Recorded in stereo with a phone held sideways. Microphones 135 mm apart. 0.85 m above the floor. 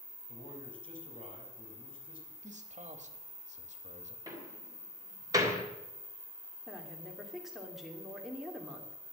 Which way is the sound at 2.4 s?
60° right (ahead or behind).